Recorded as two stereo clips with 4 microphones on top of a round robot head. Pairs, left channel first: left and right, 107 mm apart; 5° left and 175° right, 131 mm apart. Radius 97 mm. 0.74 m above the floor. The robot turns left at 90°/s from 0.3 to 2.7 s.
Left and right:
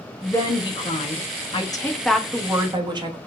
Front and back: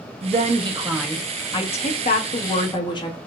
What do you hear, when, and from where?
0.2 s a woman speaking: 165° left, 1.4 m; by 3.2 s 50° right, 1.4 m